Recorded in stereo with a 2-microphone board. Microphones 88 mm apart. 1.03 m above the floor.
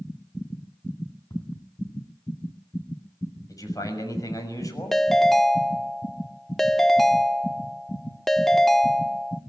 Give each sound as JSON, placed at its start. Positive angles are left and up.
{"t": 1.3, "sound": "ticking", "side_deg": 50, "distance_m": 4.5}
{"t": 3.5, "sound": "a man speaking", "side_deg": 40, "distance_m": 6.5}
{"t": 4.9, "sound": "a ringtone", "side_deg": 0, "distance_m": 0.6}